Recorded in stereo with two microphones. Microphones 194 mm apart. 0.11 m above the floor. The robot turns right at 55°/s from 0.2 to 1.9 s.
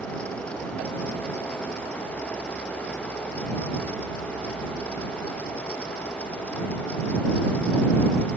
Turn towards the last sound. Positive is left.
No sound to turn to.